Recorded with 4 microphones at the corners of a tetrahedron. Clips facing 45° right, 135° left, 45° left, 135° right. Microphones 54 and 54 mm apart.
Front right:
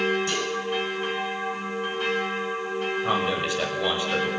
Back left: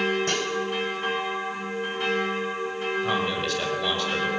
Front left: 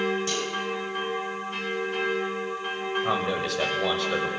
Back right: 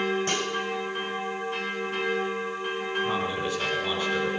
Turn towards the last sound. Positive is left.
turn(degrees=25)